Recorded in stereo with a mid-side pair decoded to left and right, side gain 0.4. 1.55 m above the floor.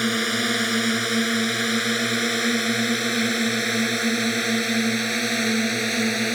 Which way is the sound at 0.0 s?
Straight ahead.